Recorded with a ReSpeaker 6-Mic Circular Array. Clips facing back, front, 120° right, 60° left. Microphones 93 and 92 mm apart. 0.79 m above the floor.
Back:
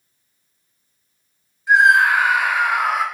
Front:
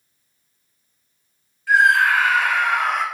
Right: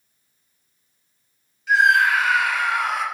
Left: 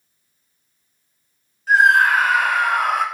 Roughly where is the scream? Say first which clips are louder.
Back 2 dB, left 3 dB; left.